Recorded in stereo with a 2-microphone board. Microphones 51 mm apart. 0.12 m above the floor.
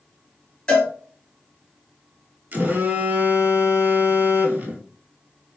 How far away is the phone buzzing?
About 0.6 m.